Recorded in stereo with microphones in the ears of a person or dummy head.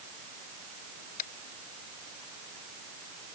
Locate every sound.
1.2 s tapping: 50° left (ahead or behind)